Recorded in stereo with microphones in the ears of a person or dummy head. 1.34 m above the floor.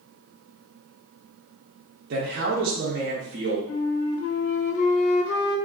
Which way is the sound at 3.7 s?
70° left (ahead or behind).